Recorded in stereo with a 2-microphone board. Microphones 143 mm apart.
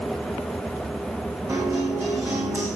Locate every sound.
1.5 s a guitar: 20° right (ahead or behind), 7.5 m